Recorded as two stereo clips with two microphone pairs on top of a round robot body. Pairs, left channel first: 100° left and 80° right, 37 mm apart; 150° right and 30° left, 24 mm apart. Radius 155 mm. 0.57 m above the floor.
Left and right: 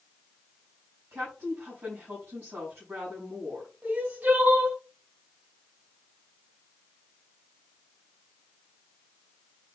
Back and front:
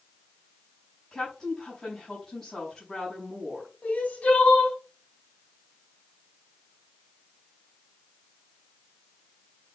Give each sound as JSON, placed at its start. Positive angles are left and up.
{"t": 1.1, "sound": "a woman speaking", "azimuth_deg": -75, "distance_m": 5.5}
{"t": 3.8, "sound": "crying", "azimuth_deg": -120, "distance_m": 2.5}